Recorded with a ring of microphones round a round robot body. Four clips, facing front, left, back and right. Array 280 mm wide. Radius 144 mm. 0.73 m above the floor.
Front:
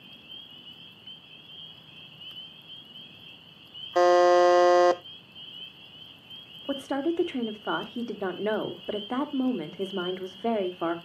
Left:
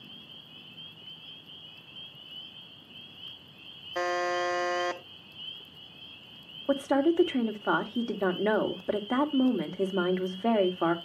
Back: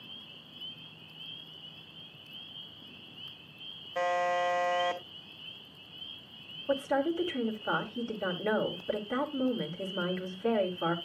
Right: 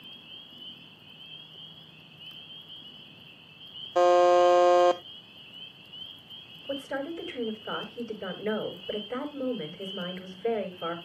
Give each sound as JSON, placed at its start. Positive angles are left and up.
{"t": 4.0, "sound": "a buzzer", "azimuth_deg": -25, "distance_m": 0.7}
{"t": 6.7, "sound": "a woman speaking", "azimuth_deg": 60, "distance_m": 2.5}